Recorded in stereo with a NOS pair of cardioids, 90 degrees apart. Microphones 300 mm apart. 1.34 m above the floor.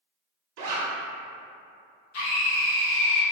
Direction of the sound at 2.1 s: 70° left.